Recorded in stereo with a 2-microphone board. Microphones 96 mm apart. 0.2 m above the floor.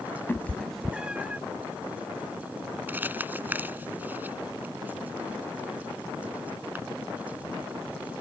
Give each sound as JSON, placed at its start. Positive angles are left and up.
{"t": 0.3, "sound": "a cat meowing", "side_deg": 25}
{"t": 2.9, "sound": "crumpling", "side_deg": -20}